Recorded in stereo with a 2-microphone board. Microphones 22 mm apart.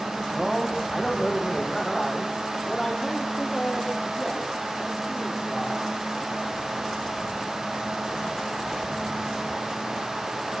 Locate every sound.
0.3 s a man speaking: 10° left (ahead or behind), 9 m; by 5.9 s centre (ahead or behind), 13 m